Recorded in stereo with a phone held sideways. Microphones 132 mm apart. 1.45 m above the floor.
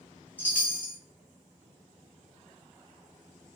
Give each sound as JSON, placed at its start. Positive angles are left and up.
{"t": 0.4, "sound": "a chime", "side_deg": 10, "distance_m": 0.6}